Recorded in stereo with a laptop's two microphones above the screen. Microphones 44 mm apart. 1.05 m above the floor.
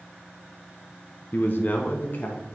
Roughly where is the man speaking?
Left.